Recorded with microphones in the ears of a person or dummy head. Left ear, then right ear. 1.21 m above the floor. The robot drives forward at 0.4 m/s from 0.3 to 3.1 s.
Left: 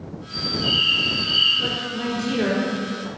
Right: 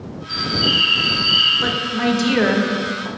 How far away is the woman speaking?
About 0.7 m.